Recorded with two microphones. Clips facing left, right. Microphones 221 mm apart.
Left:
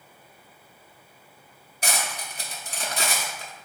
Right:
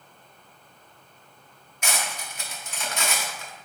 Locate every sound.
1.8 s cutlery clinking: 35° left (ahead or behind), 0.6 m